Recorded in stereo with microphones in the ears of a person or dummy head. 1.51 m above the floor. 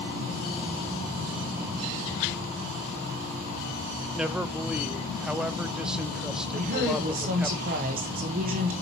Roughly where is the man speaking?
Centre.